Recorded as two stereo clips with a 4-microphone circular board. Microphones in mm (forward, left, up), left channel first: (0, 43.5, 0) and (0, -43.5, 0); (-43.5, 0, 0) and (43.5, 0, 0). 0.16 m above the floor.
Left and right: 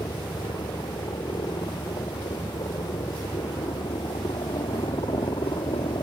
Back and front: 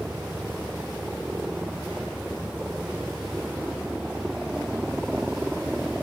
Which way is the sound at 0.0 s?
75° left.